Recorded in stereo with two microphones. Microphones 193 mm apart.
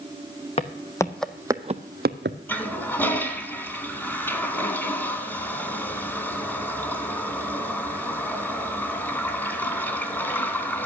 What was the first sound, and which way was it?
Footsteps, 30° left (ahead or behind).